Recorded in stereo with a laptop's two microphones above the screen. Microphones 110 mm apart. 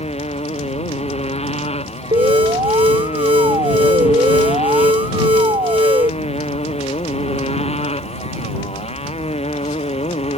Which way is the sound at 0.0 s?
75° left (ahead or behind).